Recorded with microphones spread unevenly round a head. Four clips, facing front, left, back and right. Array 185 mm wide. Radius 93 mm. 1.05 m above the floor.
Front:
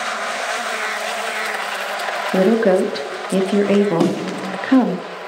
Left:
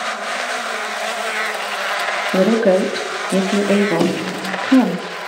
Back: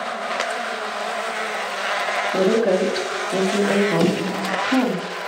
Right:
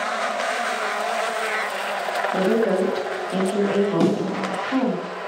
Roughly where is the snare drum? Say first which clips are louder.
Left 1 dB, front 1 dB; ahead.